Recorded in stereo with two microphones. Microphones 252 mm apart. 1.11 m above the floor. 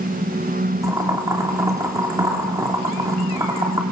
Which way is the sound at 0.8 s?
15° right (ahead or behind).